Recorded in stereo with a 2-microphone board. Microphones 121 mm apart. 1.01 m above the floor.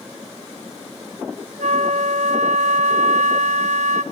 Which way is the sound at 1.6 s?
65° right (ahead or behind).